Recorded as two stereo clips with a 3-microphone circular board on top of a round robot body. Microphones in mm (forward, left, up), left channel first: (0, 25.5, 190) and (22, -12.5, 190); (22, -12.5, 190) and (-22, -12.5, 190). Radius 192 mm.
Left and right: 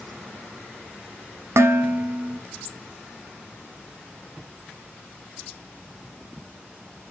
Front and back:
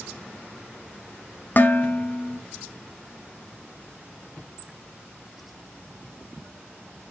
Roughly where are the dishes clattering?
Ahead right.